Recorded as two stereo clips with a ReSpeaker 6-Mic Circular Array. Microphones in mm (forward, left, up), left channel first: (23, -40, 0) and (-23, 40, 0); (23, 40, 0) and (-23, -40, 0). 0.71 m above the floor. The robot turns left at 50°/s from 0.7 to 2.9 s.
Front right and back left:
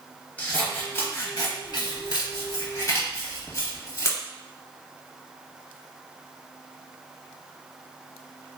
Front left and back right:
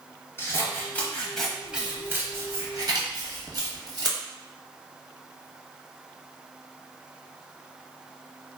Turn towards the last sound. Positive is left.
turn(degrees=-105)